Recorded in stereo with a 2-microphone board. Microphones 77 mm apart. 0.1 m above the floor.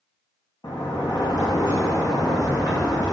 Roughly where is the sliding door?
Left.